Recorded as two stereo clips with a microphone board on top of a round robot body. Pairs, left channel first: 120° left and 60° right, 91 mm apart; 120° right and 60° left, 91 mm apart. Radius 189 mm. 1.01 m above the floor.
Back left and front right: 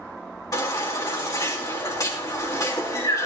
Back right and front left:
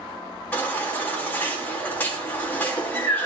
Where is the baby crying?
170° left, 3.5 m.